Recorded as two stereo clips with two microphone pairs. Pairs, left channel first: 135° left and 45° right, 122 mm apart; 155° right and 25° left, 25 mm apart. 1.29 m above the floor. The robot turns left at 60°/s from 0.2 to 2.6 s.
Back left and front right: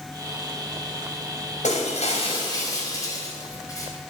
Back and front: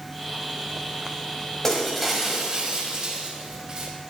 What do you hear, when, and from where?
1.6 s breaking glass: 130° left, 5 m; by 3.9 s 70° left, 5 m